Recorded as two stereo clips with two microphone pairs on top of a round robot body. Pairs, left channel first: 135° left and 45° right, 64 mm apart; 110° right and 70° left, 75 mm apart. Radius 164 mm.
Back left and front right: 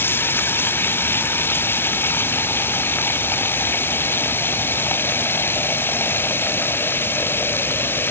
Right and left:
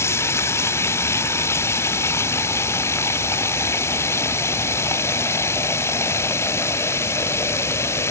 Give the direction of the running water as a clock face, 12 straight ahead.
6 o'clock.